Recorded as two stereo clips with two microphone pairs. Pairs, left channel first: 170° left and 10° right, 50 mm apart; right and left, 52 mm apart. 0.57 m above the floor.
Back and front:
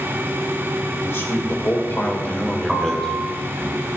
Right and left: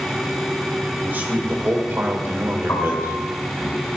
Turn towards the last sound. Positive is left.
turn(degrees=-90)